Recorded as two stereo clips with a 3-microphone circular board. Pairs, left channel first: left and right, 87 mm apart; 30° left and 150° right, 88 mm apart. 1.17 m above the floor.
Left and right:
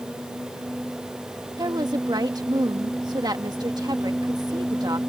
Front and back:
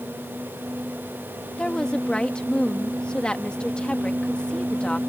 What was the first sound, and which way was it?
A woman speaking, 50° right.